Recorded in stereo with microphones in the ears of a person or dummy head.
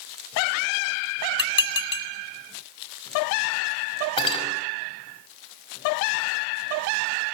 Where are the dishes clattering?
30° left (ahead or behind), 2.5 m.